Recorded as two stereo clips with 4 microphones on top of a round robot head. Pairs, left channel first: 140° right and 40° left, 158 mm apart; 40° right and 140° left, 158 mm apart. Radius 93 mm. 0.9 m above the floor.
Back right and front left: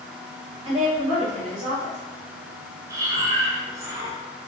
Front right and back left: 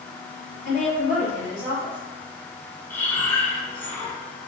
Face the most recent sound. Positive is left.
turn(degrees=10)